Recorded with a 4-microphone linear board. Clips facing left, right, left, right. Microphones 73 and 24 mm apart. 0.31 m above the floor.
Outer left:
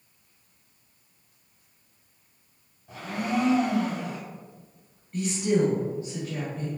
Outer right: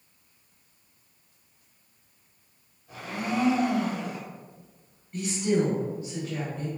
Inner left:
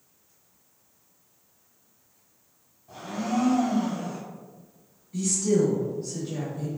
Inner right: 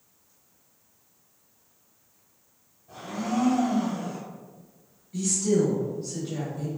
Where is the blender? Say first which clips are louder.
Outer left 2 dB, inner left 1 dB; 25° left (ahead or behind), 1.5 m.